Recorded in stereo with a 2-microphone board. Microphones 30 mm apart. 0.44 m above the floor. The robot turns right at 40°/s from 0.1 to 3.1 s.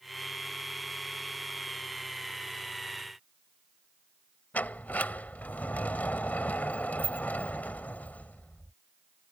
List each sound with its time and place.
4.5 s a sliding door: 70° left (ahead or behind)